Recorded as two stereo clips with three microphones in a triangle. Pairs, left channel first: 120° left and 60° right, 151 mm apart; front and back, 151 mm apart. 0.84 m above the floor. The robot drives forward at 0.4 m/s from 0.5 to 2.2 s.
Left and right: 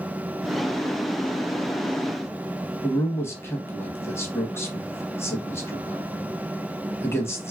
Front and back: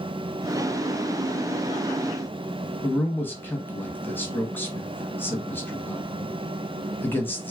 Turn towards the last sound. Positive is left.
turn(degrees=65)